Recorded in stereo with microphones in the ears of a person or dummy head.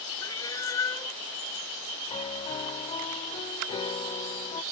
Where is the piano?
35° left (ahead or behind).